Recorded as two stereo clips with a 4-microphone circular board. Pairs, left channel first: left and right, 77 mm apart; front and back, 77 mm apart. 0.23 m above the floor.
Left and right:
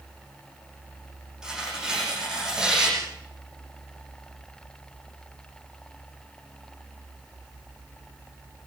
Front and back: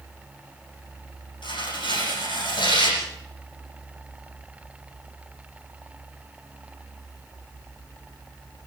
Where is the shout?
No shout in this recording.